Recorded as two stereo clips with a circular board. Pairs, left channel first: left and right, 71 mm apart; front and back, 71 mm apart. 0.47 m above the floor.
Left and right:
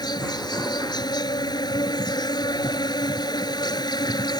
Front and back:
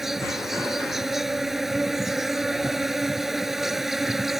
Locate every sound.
0.0 s an insect: 95° left